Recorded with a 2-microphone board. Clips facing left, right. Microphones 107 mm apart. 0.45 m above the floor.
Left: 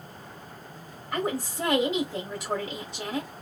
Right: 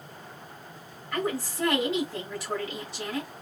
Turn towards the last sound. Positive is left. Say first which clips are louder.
# left 1 dB
turn(degrees=20)  # may be behind; listen again after turning